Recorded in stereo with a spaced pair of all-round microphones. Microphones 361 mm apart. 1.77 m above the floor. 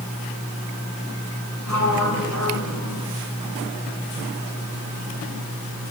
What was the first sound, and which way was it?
A sliding door, 60° left (ahead or behind).